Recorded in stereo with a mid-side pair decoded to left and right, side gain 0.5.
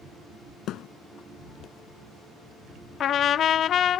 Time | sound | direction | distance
0.7 | a thud | 65° left | ?
3.0 | a trumpet | 55° left | ?